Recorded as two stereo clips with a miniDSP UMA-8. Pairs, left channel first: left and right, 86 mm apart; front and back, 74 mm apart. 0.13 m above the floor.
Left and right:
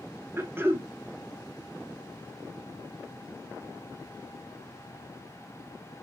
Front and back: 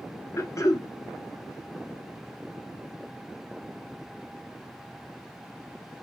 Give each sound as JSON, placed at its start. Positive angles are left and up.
{"t": 0.4, "sound": "throat clearing", "azimuth_deg": -35, "distance_m": 0.5}